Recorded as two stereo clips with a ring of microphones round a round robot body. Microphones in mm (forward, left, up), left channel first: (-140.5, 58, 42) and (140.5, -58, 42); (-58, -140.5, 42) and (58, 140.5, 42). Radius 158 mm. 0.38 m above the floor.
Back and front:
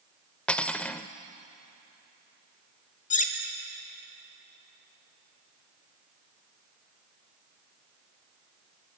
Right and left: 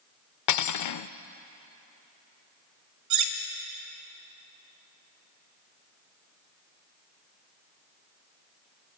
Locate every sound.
0.5 s cutlery clinking: 115° right, 0.6 m
3.1 s cutlery clinking: 95° left, 1.2 m